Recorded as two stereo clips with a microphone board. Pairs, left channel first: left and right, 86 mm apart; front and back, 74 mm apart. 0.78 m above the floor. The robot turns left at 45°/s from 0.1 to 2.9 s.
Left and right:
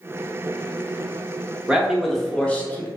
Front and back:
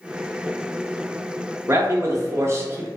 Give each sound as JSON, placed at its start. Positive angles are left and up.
{"t": 1.7, "sound": "a man speaking", "azimuth_deg": -165, "distance_m": 0.6}